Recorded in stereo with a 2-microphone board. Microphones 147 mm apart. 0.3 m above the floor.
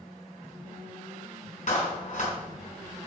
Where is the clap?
55° left (ahead or behind), 3 m.